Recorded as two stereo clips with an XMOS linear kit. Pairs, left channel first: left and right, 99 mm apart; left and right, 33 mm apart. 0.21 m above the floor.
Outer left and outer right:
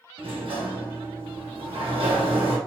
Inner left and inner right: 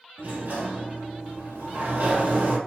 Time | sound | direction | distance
0.2 | a sliding door | 70° right (ahead or behind) | 1.6 m